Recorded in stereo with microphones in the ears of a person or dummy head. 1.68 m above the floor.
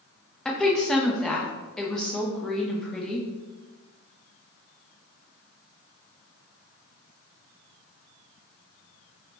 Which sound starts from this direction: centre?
A woman speaking, at 0.5 s.